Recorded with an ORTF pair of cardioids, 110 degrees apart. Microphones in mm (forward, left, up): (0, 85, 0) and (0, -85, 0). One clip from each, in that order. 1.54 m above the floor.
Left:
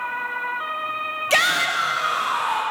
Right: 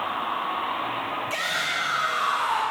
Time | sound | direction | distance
1.3 | a shout | 70° left | 0.8 m